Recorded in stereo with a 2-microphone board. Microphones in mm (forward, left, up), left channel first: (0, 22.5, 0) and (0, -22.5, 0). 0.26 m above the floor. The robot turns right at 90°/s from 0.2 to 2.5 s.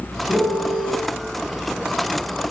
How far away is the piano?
About 1.4 m.